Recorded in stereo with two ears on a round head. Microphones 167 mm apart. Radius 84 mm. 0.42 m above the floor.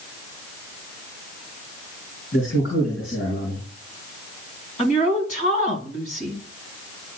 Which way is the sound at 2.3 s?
55° left (ahead or behind).